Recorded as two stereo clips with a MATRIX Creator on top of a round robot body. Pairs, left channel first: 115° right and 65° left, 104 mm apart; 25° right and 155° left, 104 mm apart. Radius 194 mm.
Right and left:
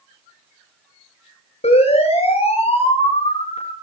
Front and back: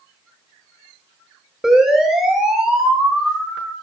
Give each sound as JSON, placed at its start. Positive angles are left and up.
{"t": 1.6, "sound": "a siren", "azimuth_deg": -115, "distance_m": 9.5}